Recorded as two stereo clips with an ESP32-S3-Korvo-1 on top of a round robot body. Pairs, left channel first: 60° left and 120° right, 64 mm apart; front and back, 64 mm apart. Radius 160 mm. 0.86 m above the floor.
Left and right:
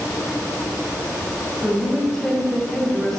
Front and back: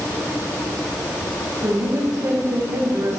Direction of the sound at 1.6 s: 140° left.